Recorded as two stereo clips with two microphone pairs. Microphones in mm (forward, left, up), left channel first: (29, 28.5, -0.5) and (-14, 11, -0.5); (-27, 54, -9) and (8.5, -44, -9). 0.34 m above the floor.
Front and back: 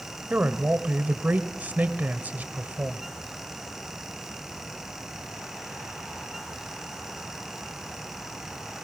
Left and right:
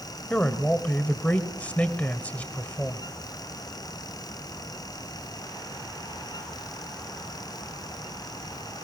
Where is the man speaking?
Straight behind, 1.2 m.